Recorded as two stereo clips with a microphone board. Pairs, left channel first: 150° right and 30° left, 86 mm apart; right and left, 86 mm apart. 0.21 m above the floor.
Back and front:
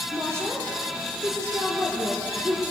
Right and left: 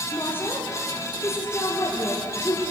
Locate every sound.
0.1 s a woman speaking: 25° right, 5 m